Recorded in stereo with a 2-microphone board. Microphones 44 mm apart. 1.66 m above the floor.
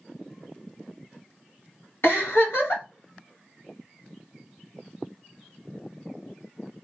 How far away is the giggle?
About 3 m.